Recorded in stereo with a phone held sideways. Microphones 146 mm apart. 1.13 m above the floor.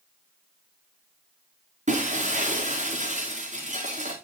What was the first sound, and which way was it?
Breaking glass, 50° right (ahead or behind).